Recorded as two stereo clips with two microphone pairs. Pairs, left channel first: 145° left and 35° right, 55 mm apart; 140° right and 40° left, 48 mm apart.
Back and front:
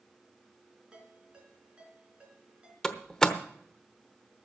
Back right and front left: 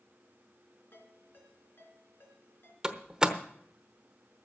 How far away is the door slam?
About 0.9 m.